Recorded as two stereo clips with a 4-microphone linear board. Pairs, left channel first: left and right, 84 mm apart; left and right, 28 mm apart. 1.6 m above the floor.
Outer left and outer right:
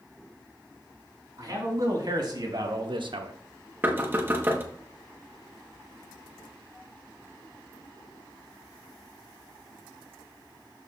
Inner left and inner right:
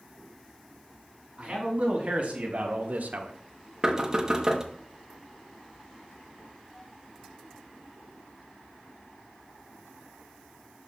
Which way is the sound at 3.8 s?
25° right (ahead or behind).